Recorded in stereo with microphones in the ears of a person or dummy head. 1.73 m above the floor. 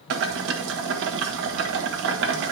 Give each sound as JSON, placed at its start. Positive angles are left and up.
{"t": 0.1, "sound": "boiling", "side_deg": -60, "distance_m": 1.3}